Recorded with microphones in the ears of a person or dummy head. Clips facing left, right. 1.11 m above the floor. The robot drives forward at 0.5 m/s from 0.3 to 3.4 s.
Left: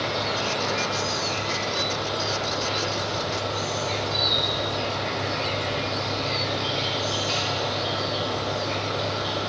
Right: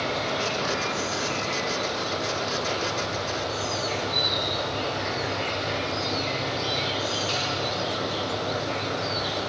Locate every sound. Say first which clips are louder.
0.0 s an insect: even; 25° right (ahead or behind), 1.5 m; by 9.5 s 15° right (ahead or behind), 3 m